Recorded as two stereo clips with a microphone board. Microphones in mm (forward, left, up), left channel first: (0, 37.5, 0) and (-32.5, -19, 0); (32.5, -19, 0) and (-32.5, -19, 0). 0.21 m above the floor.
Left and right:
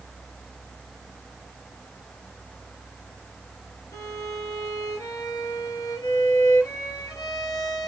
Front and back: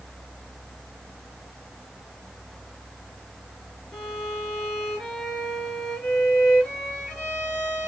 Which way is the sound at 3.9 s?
75° left.